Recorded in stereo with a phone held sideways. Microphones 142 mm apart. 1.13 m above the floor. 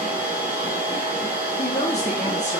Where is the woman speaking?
50° left (ahead or behind), 0.8 m.